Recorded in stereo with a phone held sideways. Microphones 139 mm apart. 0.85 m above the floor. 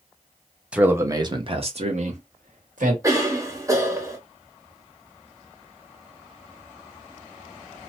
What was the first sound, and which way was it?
A man speaking, 5° right (ahead or behind).